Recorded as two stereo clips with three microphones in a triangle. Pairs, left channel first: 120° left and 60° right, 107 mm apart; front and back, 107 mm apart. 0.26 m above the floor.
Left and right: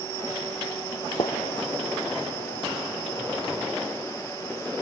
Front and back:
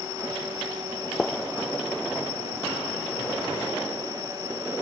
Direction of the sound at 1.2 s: 85° left.